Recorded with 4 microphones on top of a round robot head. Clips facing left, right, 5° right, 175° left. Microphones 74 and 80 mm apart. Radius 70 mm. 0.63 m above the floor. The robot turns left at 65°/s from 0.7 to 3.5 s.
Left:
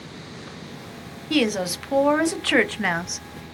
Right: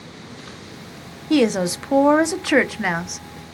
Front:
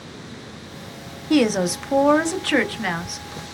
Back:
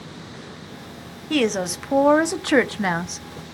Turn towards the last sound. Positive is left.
turn(degrees=150)